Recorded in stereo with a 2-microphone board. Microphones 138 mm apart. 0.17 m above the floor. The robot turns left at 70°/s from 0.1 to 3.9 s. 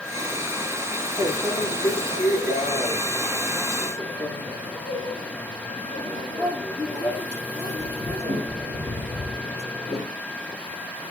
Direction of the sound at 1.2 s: 15° left (ahead or behind).